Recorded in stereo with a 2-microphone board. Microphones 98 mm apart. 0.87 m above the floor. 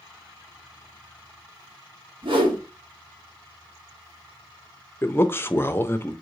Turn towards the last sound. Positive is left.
turn(degrees=25)  # may be behind; listen again after turning